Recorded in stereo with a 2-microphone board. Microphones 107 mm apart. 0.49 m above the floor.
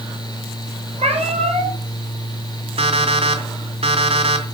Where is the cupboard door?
I don't hear a cupboard door.